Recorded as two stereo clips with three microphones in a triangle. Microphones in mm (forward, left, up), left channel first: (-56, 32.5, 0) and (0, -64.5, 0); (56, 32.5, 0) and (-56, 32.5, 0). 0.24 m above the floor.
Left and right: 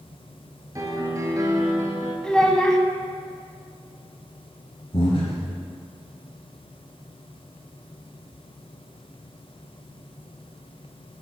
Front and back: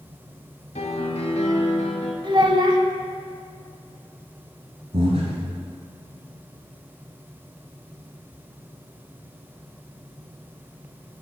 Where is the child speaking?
155° right, 0.8 m.